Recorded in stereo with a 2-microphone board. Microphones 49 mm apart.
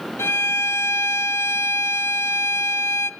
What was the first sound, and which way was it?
A violin, 65° left (ahead or behind).